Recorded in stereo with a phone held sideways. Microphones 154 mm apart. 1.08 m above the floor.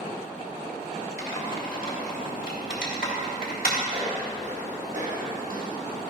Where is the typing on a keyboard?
75° left (ahead or behind), 2 m.